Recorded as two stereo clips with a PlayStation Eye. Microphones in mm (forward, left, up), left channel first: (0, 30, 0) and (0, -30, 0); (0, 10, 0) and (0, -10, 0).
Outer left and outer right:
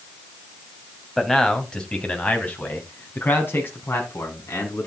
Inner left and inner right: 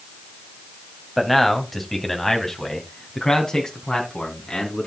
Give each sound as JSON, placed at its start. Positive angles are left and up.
{"t": 1.2, "sound": "a man speaking", "side_deg": 5, "distance_m": 2.0}